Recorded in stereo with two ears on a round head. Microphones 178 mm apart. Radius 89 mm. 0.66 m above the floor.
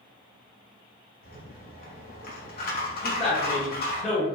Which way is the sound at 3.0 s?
5° left (ahead or behind).